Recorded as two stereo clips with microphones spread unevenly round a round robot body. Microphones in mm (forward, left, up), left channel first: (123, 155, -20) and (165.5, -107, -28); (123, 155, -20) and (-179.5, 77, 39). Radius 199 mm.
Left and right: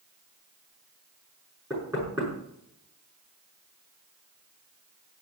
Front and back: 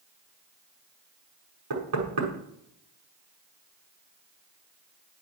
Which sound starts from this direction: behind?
Knocking, at 1.7 s.